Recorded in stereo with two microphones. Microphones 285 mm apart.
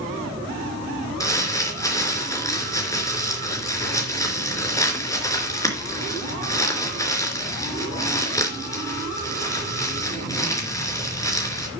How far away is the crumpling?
About 3.5 m.